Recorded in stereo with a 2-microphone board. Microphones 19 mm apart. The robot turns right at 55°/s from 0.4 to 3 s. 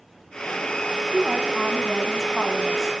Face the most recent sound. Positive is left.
turn(degrees=20)  # may be behind; listen again after turning